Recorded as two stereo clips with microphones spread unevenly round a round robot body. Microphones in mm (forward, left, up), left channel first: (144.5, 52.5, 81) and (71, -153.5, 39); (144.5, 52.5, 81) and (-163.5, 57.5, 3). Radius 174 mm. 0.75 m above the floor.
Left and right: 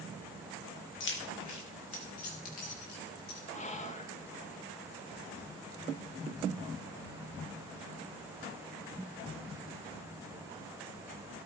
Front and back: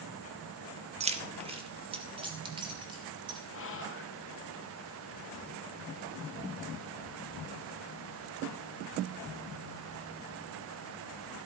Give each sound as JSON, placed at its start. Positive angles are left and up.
{"t": 1.0, "sound": "keys jangling", "azimuth_deg": 115, "distance_m": 1.0}
{"t": 3.5, "sound": "whispering", "azimuth_deg": 25, "distance_m": 1.0}